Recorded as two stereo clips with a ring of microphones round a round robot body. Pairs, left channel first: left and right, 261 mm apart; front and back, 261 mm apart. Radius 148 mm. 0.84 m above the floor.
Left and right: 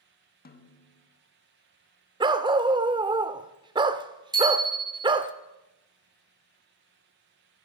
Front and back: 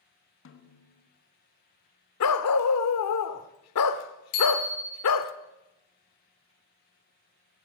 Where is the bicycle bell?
15° right, 5 m.